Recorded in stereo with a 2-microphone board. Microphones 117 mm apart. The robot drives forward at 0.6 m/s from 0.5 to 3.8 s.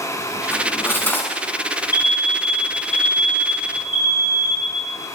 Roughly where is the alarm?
Centre.